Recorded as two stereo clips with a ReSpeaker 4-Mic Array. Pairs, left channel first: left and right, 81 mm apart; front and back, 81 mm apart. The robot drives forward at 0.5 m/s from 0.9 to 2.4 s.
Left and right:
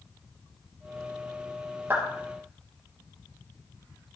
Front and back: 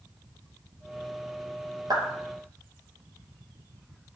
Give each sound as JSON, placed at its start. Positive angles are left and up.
{"t": 1.9, "sound": "a clap", "azimuth_deg": -150, "distance_m": 2.5}